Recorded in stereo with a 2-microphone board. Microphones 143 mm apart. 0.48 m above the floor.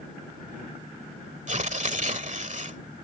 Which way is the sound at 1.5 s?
55° right (ahead or behind).